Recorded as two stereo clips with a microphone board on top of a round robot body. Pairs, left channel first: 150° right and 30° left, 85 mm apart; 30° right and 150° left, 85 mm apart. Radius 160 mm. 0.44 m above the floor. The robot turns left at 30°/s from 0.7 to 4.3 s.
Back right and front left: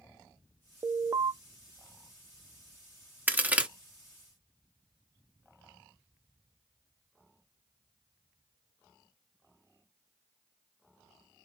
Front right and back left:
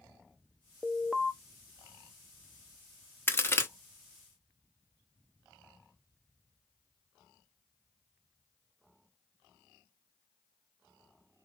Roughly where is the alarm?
Left.